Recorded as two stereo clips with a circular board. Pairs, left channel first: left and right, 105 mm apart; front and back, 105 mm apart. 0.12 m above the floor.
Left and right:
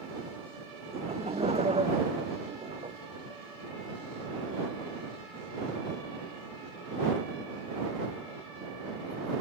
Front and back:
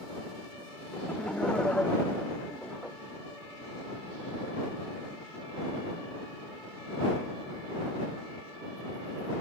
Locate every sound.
0.9 s laughter: 80° right